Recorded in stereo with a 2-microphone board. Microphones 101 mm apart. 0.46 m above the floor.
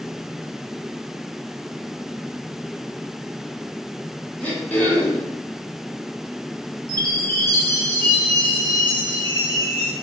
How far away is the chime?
About 0.7 m.